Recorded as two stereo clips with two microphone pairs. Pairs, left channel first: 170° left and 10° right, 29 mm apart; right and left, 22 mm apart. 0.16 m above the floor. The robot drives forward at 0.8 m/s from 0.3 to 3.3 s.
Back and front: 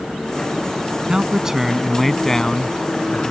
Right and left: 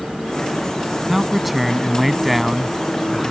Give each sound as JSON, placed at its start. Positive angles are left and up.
{"t": 1.1, "sound": "a man speaking", "azimuth_deg": 10}